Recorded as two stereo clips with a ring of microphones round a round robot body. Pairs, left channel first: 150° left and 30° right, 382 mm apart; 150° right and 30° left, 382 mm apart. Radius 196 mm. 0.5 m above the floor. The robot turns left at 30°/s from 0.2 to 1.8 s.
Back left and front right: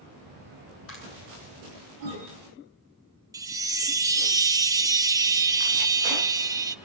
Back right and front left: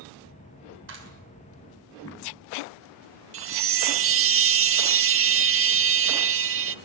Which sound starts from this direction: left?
A clap, at 0.9 s.